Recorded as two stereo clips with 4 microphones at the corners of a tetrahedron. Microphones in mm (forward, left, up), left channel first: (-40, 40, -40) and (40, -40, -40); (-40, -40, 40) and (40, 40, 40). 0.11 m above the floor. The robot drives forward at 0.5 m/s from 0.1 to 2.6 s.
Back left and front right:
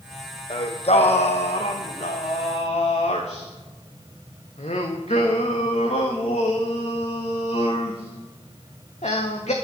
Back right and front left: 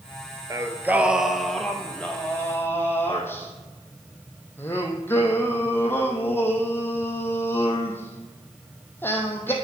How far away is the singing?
About 0.6 m.